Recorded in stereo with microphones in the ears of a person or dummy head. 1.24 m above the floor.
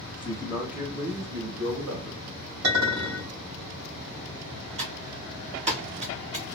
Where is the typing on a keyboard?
25° right (ahead or behind), 0.9 m.